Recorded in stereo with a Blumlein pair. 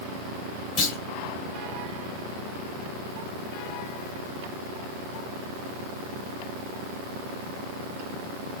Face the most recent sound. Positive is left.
turn(degrees=35)